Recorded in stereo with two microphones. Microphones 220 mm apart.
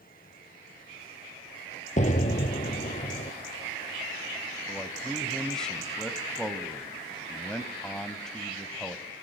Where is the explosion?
35° left (ahead or behind), 1.6 m.